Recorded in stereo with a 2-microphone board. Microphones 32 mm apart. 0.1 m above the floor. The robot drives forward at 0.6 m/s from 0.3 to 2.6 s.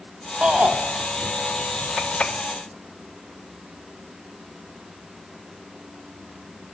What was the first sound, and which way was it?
A shout, 30° right (ahead or behind).